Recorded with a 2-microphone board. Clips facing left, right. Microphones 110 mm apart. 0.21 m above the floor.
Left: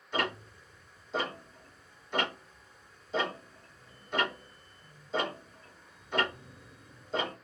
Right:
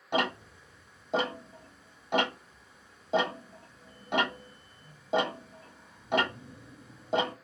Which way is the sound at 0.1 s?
85° right.